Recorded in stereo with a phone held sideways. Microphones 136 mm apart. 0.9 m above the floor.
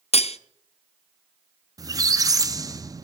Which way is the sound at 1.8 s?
25° right (ahead or behind).